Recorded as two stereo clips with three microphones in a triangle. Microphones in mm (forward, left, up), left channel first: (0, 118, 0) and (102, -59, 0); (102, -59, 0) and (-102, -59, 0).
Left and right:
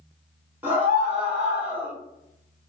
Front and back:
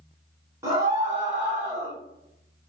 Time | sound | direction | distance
0.6 | a scream | 125° right | 1.4 m